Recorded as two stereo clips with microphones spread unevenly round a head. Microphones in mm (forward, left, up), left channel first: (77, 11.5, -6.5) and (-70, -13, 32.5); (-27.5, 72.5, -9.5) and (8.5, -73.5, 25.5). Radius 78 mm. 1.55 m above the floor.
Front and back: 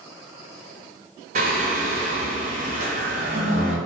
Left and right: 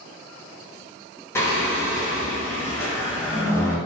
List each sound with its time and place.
1.4 s singing: 175° right, 0.9 m